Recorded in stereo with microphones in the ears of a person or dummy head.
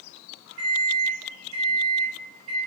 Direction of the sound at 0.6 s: 40° right (ahead or behind).